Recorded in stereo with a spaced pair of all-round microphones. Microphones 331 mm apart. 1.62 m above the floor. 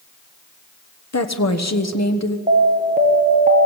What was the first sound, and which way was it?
A woman speaking, 50° left (ahead or behind).